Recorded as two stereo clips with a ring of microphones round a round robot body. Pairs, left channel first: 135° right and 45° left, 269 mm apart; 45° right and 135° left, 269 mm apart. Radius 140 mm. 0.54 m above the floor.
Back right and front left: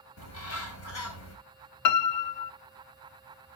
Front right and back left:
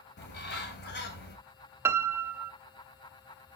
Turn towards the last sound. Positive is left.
turn(degrees=-145)